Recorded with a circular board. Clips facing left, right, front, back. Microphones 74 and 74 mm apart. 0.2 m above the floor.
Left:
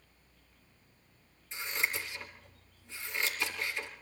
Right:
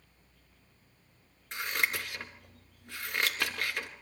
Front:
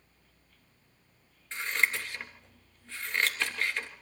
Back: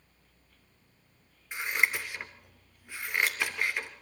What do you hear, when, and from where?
1.5 s scissors: 105° right, 3 m